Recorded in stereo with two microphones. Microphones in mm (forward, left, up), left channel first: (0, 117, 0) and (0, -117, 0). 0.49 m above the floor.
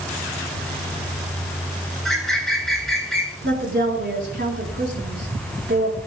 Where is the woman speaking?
50° right (ahead or behind), 4.5 m.